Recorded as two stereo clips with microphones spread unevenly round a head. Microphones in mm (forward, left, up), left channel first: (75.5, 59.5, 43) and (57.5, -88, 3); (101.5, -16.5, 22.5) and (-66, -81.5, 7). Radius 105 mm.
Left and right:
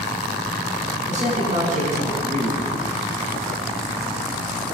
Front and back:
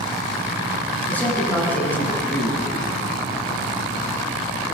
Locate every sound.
1.1 s a man speaking: 60° right, 8 m